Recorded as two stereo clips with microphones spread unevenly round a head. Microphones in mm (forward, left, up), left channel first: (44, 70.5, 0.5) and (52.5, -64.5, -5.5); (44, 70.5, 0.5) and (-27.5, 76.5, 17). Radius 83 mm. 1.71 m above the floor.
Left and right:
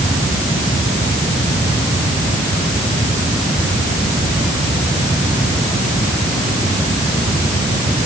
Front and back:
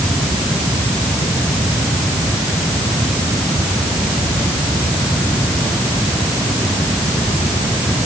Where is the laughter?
No laughter in this recording.